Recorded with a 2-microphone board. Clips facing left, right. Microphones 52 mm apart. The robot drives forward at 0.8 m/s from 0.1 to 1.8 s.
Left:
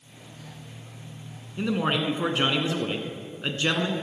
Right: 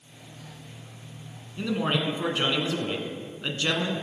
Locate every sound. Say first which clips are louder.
1.6 s a man speaking: left 1 dB; 20° left (ahead or behind), 1.1 m